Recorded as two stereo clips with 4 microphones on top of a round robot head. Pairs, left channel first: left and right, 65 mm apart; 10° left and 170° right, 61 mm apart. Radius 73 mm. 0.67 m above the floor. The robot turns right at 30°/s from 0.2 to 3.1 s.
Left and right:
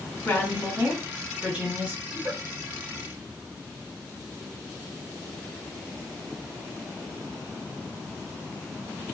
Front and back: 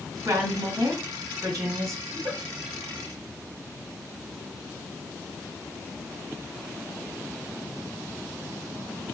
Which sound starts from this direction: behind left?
A woman speaking, at 0.2 s.